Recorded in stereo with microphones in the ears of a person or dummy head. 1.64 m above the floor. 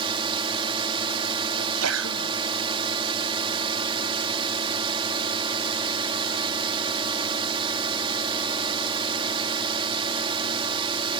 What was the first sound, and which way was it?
A drone, 30° right (ahead or behind).